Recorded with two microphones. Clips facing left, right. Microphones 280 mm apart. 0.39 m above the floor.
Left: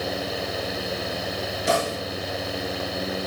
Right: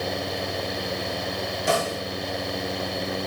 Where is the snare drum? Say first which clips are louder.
Left 1 dB; 20° left (ahead or behind), 5 m.